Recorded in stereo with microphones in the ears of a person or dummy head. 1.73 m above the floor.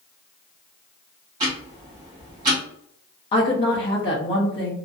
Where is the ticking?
20° right (ahead or behind), 0.8 m.